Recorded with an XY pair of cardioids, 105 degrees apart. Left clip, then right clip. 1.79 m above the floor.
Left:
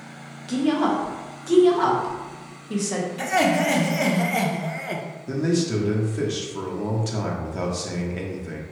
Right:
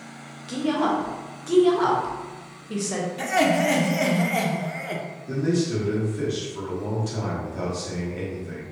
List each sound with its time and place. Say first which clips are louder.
0.5 s a woman speaking: left 1 dB; 5° left, 0.9 m
3.2 s laughter: even; 5° left, 0.7 m
5.3 s a man speaking: left 1 dB; 40° left, 0.9 m